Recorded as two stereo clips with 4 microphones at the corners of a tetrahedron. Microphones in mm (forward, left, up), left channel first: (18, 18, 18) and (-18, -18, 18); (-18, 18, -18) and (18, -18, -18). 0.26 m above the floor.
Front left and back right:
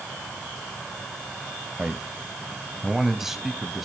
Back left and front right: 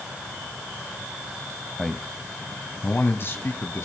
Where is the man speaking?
130° right, 1.1 m; by 3.9 s 140° left, 1.8 m.